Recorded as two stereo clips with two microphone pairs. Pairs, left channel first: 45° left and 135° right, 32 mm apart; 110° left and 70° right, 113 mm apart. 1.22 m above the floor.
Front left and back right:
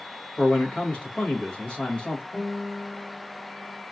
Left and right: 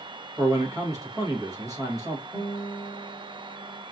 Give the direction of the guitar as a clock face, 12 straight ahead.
12 o'clock.